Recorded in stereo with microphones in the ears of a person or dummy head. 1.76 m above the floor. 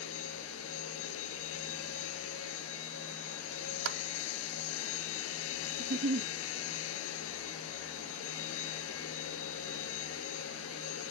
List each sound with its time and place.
0.0 s a machine running: 70° left (ahead or behind)
3.9 s a clap: 75° right (ahead or behind)
5.8 s a giggle: 45° right (ahead or behind)